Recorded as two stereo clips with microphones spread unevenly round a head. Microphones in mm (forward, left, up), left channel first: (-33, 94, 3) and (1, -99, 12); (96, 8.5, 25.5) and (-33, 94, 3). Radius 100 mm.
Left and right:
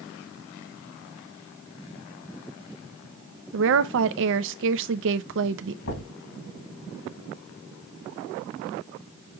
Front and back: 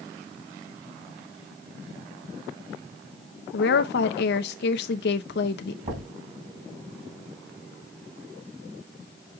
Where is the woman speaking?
55° right, 0.5 m.